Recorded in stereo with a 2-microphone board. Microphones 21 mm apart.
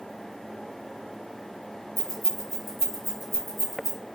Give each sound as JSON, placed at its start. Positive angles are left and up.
{"t": 2.0, "sound": "keys jangling", "side_deg": -5, "distance_m": 1.7}